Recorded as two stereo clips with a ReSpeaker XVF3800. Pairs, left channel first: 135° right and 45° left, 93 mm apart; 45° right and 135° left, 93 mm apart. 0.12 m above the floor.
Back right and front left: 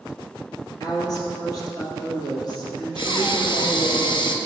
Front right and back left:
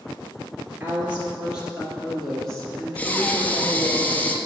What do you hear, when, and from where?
0.8 s a woman speaking: 165° right, 2 m; by 4.0 s 110° right, 2.5 m
3.0 s breathing: 115° right, 0.6 m